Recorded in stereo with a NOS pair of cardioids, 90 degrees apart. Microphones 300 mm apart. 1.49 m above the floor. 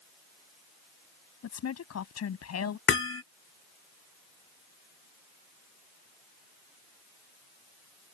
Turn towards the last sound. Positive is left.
turn(degrees=45)